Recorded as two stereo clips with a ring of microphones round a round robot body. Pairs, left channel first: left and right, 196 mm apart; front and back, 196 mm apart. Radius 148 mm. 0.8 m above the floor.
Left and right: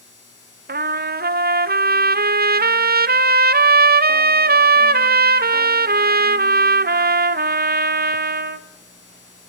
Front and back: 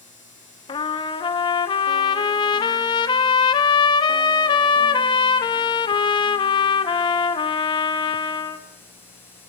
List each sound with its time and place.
0.7 s a trumpet: 65° right, 0.9 m